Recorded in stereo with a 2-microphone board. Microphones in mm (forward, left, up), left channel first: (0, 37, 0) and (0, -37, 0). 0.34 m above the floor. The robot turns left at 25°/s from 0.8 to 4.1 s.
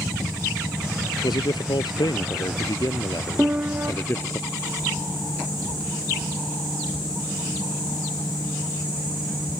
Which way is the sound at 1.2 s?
105° left.